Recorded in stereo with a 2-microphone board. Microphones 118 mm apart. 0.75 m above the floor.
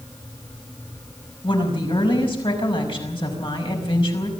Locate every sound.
1.4 s a woman speaking: 45° left (ahead or behind), 5.5 m